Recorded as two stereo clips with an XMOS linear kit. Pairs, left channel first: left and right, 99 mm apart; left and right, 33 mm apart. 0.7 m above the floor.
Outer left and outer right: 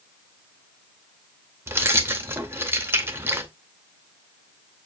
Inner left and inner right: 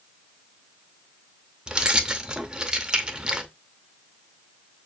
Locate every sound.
1.7 s keys jangling: 25° right (ahead or behind), 0.6 m